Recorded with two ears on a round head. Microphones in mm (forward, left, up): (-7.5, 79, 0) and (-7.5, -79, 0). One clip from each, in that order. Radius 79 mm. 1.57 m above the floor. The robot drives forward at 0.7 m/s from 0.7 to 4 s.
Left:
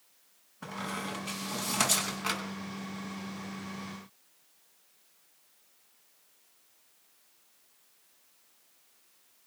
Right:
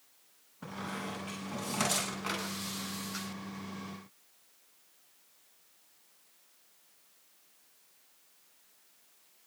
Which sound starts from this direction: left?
A squeak, at 0.6 s.